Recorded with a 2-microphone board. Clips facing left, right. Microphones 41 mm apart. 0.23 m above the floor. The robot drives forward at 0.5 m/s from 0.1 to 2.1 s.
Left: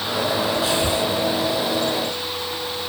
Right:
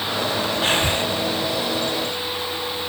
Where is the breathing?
45° right (ahead or behind), 1.8 m.